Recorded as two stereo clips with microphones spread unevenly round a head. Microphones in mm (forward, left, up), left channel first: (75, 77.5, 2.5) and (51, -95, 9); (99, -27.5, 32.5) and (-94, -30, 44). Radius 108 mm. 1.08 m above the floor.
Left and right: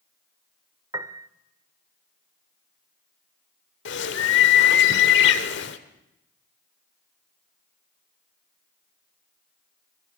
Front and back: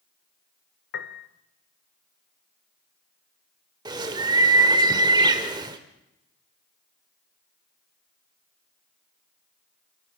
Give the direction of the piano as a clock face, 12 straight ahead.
1 o'clock.